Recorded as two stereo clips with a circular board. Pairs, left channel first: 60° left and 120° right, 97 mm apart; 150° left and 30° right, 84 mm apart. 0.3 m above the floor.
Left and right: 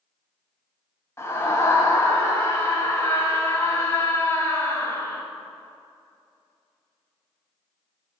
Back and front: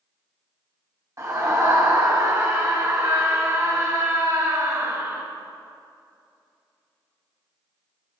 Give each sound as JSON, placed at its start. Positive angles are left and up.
{"t": 1.2, "sound": "a scream", "azimuth_deg": 5, "distance_m": 1.6}